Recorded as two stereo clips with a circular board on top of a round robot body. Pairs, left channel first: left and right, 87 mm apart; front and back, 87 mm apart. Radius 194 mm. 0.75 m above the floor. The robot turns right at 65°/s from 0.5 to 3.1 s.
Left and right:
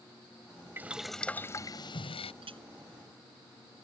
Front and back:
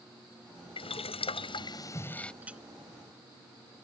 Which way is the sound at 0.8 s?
20° right.